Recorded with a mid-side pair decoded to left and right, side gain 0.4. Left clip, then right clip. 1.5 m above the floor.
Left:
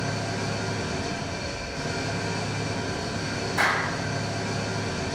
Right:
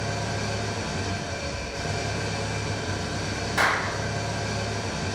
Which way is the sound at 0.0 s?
60° right.